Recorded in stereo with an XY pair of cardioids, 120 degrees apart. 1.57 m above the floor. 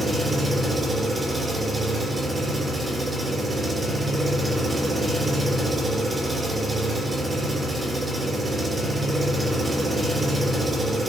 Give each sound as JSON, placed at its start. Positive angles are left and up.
{"t": 0.0, "sound": "an engine running", "azimuth_deg": -20, "distance_m": 1.8}